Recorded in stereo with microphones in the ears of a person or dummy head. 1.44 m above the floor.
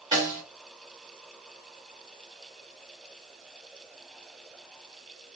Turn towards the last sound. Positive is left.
turn(degrees=-25)  # may be behind; listen again after turning